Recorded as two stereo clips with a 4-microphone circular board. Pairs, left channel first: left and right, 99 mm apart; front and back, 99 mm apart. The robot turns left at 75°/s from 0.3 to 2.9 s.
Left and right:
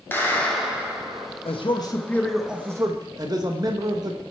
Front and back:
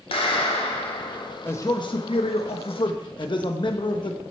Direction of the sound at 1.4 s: 70° left.